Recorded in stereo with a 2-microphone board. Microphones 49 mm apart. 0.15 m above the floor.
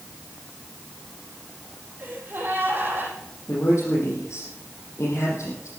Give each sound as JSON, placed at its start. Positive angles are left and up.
{"t": 2.0, "sound": "a gasp", "side_deg": -45, "distance_m": 4.5}
{"t": 3.5, "sound": "a man speaking", "side_deg": 75, "distance_m": 6.5}